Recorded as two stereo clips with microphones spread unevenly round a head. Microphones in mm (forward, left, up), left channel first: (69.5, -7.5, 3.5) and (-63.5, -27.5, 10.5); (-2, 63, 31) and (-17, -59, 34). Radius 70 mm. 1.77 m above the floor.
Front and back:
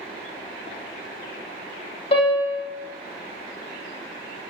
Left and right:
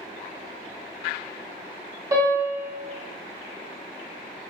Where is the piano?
35° right, 0.5 m.